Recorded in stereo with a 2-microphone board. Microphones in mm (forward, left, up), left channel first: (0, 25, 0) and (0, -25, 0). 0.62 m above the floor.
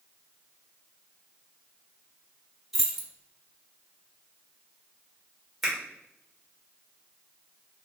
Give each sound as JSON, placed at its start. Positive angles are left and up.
{"t": 2.7, "sound": "keys jangling", "side_deg": -5, "distance_m": 0.9}
{"t": 5.6, "sound": "a finger snap", "side_deg": 0, "distance_m": 1.7}